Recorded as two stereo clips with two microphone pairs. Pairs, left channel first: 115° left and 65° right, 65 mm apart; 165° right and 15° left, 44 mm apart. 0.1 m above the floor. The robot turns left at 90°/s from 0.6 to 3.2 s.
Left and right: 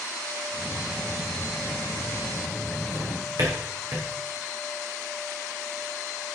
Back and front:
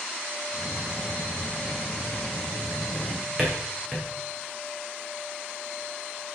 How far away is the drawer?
About 4 m.